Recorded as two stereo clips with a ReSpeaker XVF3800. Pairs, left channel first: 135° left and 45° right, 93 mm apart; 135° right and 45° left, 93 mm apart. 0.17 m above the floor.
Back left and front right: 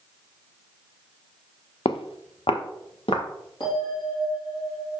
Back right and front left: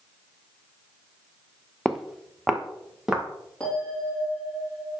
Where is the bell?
150° left, 4 m.